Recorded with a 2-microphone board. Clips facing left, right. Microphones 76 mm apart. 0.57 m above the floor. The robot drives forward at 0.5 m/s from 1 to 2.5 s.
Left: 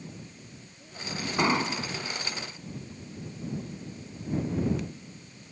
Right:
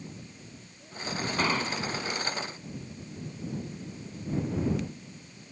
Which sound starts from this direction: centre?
An explosion, at 1.4 s.